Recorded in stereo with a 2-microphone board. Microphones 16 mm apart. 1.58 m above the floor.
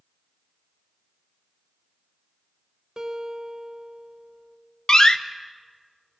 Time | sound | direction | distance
3.0 | a guitar | 40° right (ahead or behind) | 1.3 m
4.9 | a door slam | 40° left (ahead or behind) | 0.6 m